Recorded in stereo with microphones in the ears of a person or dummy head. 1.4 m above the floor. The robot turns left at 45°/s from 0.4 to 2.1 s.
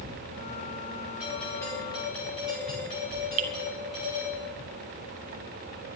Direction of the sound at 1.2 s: 175° right.